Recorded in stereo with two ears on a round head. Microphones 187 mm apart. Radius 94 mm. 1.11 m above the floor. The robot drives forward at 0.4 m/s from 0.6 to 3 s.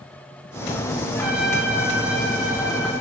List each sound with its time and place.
1.1 s a trumpet: 10° right (ahead or behind), 7 m; by 2.9 s 5° right (ahead or behind), 7.5 m